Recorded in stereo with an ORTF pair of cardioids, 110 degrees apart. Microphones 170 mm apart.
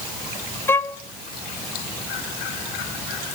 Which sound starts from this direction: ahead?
A violin, at 0.7 s.